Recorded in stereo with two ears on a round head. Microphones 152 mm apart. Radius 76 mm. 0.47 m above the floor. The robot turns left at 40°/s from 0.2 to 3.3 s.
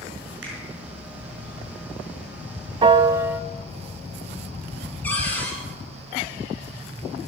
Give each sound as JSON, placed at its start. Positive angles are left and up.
{"t": 0.4, "sound": "a finger snap", "side_deg": -80, "distance_m": 5.5}
{"t": 2.8, "sound": "a piano", "side_deg": -30, "distance_m": 0.6}
{"t": 5.0, "sound": "a cupboard door", "side_deg": 10, "distance_m": 3.0}